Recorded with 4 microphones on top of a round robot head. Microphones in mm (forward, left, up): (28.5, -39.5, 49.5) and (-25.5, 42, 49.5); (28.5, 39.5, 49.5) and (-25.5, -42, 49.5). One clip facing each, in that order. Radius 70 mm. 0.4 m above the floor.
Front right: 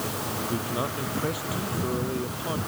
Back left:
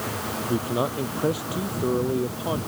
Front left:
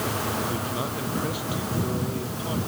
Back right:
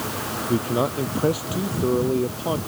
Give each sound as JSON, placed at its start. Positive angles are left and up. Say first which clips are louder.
{"t": 0.5, "sound": "a man speaking", "louder": "back left 7 dB, back right 7 dB", "azimuth_deg": -175}